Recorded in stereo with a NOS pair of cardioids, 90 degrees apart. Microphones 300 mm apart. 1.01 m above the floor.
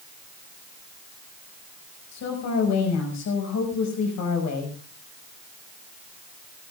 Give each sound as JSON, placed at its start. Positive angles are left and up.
{"t": 2.1, "sound": "a woman speaking", "azimuth_deg": 65, "distance_m": 6.0}